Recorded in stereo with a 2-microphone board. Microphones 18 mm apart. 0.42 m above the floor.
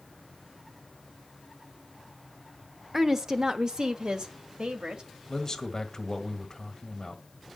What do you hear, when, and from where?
2.9 s a woman speaking: 20° right (ahead or behind), 0.7 m; by 5.0 s 65° right (ahead or behind), 1.6 m
5.3 s a man speaking: 35° left (ahead or behind), 1.7 m